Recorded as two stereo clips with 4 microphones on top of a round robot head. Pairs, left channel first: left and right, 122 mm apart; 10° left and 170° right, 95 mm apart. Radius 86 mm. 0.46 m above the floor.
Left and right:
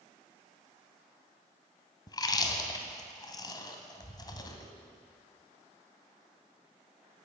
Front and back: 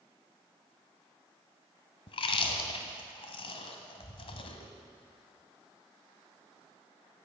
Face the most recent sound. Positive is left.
turn(degrees=35)